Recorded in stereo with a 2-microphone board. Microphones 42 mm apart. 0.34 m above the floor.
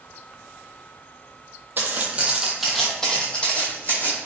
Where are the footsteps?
45° right (ahead or behind), 0.7 m; by 4.2 s 40° left (ahead or behind), 1.3 m.